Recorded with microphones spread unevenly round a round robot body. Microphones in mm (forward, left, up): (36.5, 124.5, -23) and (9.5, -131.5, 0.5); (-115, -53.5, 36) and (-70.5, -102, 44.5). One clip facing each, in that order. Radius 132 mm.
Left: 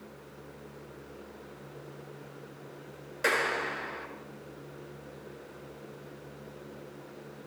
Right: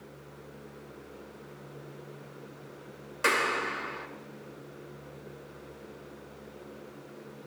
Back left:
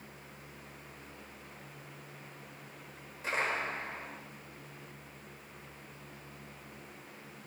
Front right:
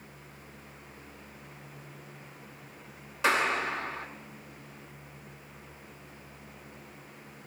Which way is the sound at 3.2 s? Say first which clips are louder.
Even, front right 7 dB; 20° right.